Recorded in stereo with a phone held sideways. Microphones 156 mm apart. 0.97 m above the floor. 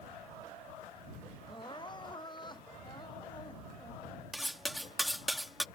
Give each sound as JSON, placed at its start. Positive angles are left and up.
{"t": 1.5, "sound": "crying", "side_deg": 30}
{"t": 4.3, "sound": "cutlery clinking", "side_deg": 0}